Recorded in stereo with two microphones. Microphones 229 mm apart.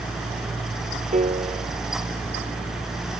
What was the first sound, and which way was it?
A piano, 35° right (ahead or behind).